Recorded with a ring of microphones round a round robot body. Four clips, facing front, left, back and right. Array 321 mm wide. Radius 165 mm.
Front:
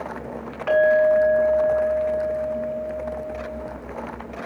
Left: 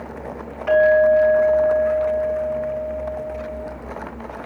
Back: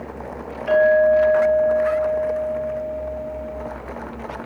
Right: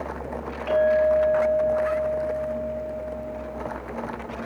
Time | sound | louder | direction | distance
0.7 | a clink | left 6 dB, back 2 dB | 15° left | 5.5 m